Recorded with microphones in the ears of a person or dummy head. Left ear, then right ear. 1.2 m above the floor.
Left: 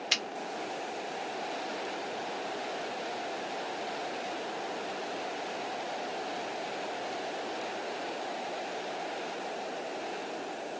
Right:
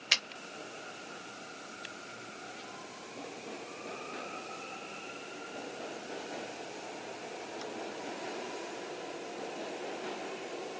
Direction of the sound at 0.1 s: 10° right (ahead or behind).